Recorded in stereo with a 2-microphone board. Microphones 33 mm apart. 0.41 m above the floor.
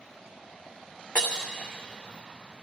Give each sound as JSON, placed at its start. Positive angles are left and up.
{"t": 1.1, "sound": "breaking glass", "side_deg": 45, "distance_m": 3.0}